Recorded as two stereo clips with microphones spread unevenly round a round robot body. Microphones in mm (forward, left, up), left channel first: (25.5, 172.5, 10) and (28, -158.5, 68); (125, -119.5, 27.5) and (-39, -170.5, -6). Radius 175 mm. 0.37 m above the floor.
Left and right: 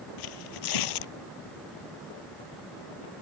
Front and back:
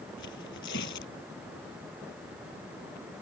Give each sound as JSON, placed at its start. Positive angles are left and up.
{"t": 0.2, "sound": "tearing paper", "azimuth_deg": 75}